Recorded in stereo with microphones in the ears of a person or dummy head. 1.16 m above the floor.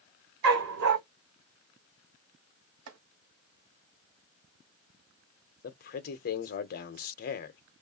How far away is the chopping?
About 1.0 m.